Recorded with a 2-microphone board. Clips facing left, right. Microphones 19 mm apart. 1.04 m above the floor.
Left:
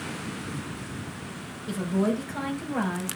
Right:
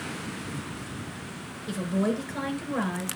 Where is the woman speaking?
10° right (ahead or behind), 4.5 m.